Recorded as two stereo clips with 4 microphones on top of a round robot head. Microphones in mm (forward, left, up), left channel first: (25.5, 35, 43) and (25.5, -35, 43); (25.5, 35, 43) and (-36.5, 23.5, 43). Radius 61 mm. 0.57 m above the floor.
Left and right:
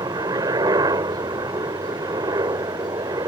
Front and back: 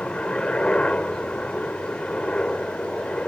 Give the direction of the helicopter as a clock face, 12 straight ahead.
2 o'clock.